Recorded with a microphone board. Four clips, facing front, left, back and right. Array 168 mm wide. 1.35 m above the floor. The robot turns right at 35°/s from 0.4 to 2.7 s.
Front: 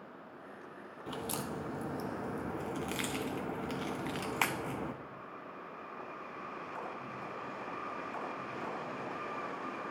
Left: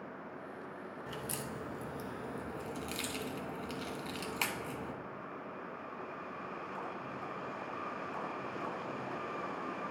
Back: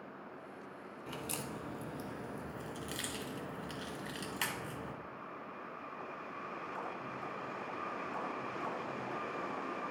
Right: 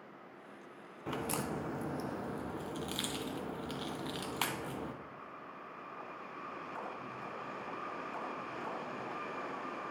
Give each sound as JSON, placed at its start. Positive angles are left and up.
{"t": 1.1, "sound": "a crack", "azimuth_deg": -75, "distance_m": 0.5}